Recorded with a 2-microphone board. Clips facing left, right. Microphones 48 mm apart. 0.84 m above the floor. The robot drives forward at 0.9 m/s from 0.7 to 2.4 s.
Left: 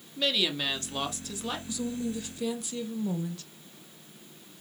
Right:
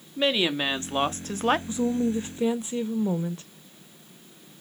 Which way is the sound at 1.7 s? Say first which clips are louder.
Right 8 dB; 30° right (ahead or behind).